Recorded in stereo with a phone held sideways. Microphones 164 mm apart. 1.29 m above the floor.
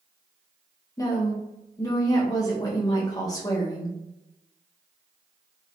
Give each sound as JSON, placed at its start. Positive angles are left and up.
{"t": 1.0, "sound": "a woman speaking", "side_deg": 20, "distance_m": 1.2}